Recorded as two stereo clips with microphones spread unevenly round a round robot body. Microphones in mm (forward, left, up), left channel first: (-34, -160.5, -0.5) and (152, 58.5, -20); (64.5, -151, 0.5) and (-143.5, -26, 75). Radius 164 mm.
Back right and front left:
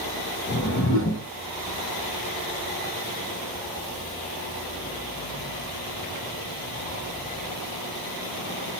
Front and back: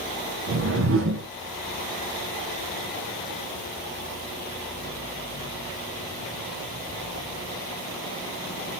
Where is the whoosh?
170° right, 0.7 m.